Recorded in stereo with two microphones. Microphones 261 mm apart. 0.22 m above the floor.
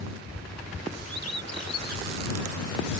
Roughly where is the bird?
Left.